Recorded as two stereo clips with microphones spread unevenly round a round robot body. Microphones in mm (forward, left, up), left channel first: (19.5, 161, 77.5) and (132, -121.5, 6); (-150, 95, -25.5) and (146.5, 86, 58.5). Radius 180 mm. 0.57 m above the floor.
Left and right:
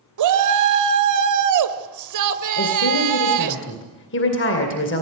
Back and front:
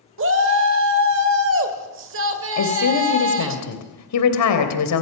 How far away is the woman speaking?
About 3 m.